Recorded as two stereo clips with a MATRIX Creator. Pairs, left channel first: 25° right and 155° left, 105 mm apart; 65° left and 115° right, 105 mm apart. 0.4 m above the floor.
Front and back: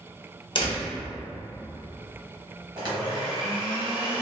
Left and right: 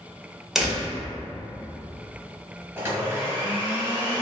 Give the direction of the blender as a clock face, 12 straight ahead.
6 o'clock.